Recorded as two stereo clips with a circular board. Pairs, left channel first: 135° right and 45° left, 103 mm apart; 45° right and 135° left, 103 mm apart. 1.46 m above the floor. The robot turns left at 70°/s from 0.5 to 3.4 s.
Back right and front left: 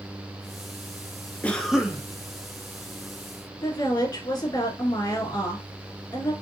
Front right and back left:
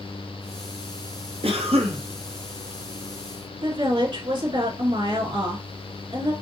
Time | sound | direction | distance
1.4 | a cough | 150° left | 0.8 m
3.6 | a woman speaking | straight behind | 2 m